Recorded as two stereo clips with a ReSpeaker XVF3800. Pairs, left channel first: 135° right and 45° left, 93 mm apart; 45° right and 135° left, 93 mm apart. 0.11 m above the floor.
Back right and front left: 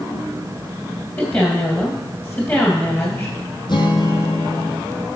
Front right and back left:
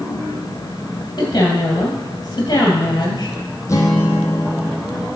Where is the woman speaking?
70° right, 2.5 m.